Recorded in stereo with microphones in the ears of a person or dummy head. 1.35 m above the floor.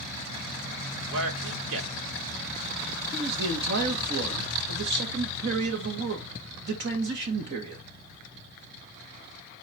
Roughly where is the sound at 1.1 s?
Right.